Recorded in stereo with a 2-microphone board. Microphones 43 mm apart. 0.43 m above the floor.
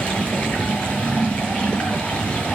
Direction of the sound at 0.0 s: 25° left (ahead or behind).